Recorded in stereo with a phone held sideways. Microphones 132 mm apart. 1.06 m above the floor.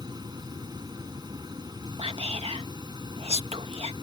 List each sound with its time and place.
0.0 s a fan: 30° right (ahead or behind)
2.0 s whispering: 50° right (ahead or behind)